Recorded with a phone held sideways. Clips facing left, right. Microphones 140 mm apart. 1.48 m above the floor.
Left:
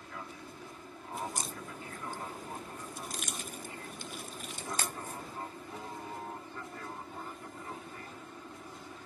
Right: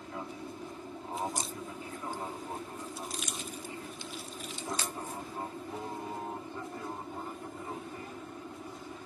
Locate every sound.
0.0 s an aircraft: 25° right (ahead or behind); by 9.1 s 15° right (ahead or behind)
1.1 s a crack: 50° left (ahead or behind)